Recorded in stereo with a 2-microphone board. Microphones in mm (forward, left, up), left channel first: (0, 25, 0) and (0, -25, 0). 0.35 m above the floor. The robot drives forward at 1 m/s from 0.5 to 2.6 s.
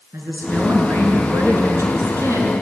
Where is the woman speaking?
60° right (ahead or behind), 5.5 m; by 2.5 s 75° right (ahead or behind), 5 m.